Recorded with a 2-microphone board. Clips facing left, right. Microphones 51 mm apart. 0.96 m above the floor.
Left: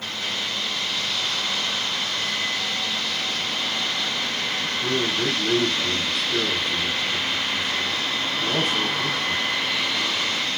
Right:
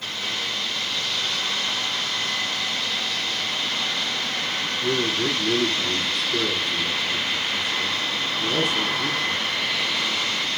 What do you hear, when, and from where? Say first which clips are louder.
4.8 s a man speaking: right 1 dB; 50° left (ahead or behind), 1.1 m